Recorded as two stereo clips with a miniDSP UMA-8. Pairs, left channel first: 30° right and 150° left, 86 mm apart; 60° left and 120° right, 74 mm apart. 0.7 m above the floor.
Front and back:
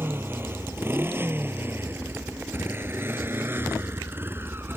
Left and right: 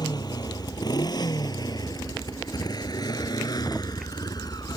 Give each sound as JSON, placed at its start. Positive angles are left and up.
{"t": 0.0, "sound": "a motorcycle", "azimuth_deg": 85}